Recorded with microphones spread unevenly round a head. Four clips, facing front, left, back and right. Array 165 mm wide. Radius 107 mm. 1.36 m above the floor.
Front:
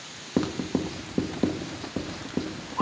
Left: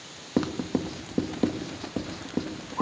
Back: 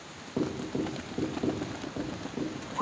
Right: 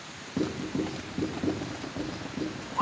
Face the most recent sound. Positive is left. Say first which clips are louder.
# left 3 dB, front 4 dB
turn(degrees=50)